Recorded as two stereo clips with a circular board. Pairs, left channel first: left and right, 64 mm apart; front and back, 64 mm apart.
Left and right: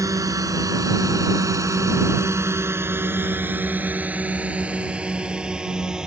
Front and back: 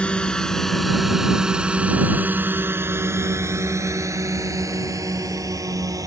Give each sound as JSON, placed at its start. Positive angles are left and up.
{"t": 0.0, "sound": "a drone", "azimuth_deg": -70}